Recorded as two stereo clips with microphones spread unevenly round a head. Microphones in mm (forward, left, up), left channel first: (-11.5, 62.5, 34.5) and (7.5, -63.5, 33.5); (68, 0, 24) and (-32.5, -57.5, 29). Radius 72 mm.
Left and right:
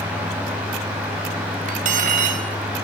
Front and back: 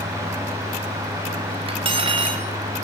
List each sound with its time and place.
1.7 s cutlery clinking: 110° right, 4 m